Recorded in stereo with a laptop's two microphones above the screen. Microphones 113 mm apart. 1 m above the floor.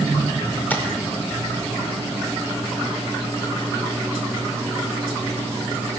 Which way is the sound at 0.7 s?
15° left (ahead or behind).